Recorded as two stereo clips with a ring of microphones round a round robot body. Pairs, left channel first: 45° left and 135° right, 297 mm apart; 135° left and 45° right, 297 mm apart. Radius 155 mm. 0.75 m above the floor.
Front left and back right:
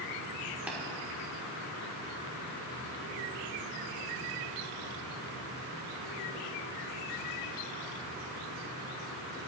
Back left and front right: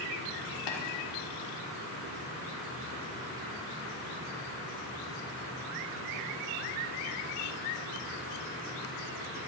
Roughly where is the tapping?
Behind left.